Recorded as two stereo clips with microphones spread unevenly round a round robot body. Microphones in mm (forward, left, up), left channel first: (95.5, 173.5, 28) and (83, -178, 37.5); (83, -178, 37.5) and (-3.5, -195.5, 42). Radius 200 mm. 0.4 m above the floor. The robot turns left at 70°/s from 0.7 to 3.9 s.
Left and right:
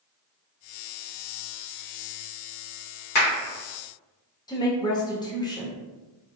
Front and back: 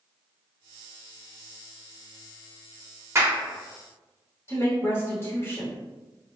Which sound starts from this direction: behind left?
A clap, at 3.1 s.